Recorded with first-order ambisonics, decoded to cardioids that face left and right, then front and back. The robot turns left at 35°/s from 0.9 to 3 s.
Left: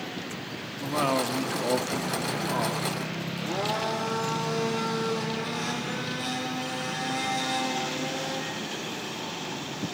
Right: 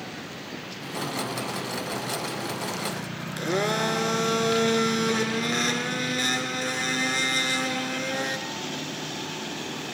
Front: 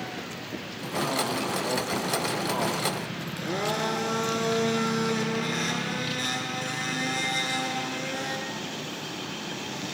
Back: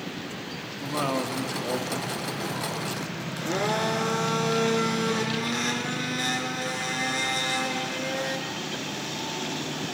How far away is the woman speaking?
About 1.4 m.